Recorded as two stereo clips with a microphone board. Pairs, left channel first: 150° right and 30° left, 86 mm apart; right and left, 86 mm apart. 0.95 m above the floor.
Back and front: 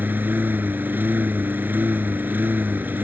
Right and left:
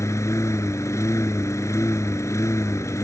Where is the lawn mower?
35° right.